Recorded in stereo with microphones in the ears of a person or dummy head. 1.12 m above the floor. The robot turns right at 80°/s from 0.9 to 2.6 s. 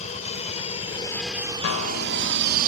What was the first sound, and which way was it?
An aircraft, 35° left (ahead or behind).